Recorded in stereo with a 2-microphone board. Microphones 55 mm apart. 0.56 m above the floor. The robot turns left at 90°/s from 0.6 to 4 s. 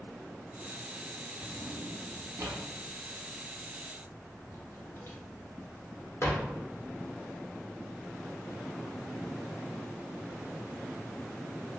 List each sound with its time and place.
1.4 s a drawer: 10° right (ahead or behind), 0.6 m; by 6.5 s 55° left (ahead or behind), 0.6 m